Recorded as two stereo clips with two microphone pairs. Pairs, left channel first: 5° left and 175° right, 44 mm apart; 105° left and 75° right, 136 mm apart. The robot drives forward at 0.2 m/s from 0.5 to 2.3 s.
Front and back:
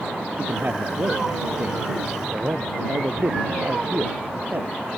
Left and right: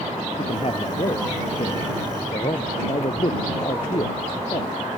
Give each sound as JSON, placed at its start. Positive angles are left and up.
{"t": 0.4, "sound": "a man speaking", "azimuth_deg": 145}